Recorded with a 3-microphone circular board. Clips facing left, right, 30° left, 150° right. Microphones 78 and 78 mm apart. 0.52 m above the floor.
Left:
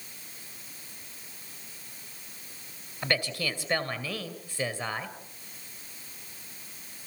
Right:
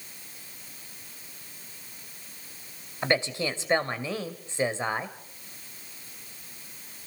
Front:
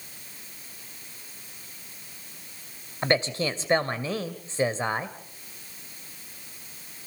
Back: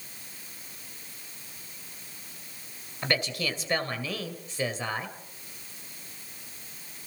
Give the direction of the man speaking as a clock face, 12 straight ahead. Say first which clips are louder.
Right 4 dB, front 5 dB; 1 o'clock.